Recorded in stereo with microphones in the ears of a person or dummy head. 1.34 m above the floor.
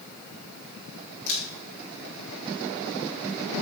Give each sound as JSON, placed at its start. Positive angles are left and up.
{"t": 1.3, "sound": "a camera shutter", "side_deg": 70, "distance_m": 4.5}